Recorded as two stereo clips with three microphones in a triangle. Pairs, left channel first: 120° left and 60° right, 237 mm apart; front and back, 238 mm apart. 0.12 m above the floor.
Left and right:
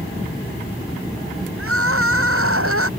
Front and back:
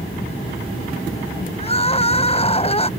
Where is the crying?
65° right.